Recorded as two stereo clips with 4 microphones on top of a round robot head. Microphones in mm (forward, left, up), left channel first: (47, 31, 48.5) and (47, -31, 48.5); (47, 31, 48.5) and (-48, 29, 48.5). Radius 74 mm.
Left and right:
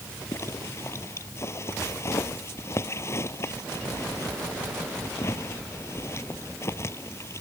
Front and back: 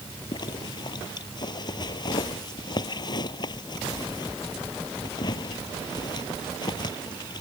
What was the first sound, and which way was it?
A zipper, 45° left.